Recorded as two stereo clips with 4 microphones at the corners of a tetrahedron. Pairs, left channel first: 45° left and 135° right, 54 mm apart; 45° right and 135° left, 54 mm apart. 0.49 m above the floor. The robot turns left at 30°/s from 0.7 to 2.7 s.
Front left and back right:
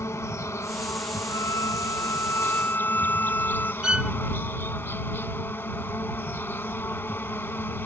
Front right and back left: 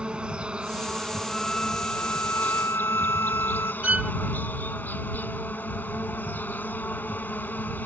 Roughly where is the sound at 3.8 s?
Behind.